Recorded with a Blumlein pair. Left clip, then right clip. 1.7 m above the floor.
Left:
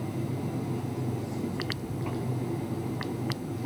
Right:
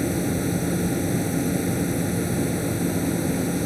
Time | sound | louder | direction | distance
0.0 | a machine running | right 10 dB | 50° right | ?